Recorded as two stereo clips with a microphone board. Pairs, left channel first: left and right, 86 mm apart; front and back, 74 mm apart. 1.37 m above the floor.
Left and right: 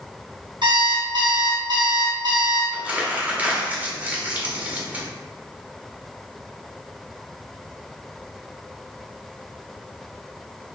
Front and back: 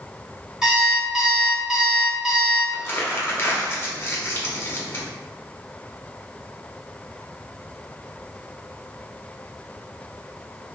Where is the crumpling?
30° right, 1.0 m.